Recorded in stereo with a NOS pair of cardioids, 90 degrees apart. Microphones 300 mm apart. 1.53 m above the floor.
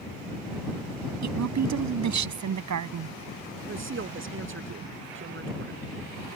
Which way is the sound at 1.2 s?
55° right.